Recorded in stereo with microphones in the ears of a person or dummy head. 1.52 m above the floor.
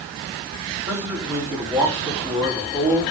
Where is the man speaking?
10° right (ahead or behind), 3.5 m.